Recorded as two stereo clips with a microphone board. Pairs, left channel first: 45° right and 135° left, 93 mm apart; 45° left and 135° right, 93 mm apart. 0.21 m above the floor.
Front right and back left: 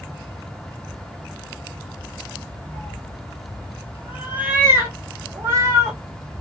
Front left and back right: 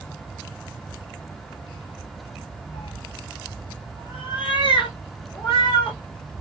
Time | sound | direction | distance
2.7 | a cat meowing | 20° left | 0.7 m